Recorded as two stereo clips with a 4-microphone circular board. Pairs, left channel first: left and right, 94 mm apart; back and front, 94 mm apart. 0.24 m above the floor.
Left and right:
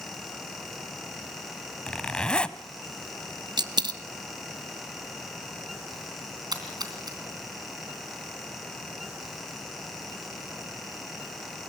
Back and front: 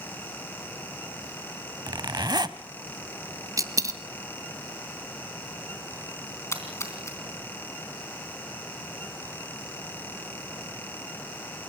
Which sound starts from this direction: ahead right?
A dropped coin, at 3.6 s.